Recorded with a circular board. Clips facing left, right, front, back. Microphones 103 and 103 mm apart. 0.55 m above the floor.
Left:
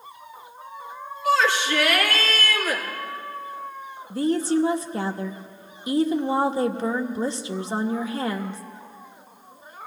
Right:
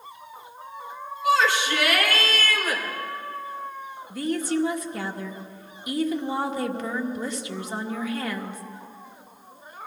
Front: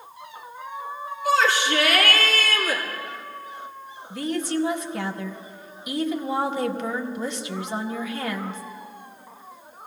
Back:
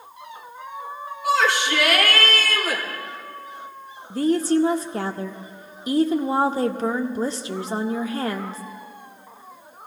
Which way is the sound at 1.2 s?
165° right.